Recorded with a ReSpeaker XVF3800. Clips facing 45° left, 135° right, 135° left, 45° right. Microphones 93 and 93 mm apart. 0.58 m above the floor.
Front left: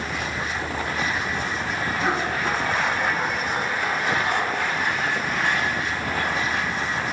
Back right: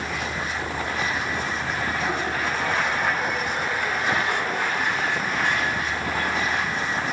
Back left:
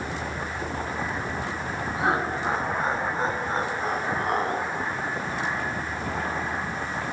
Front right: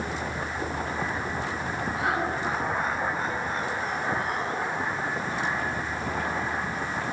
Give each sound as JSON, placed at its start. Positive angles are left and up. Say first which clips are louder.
{"t": 2.0, "sound": "laughter", "louder": "front left 2 dB, back left 3 dB", "azimuth_deg": 70, "distance_m": 8.5}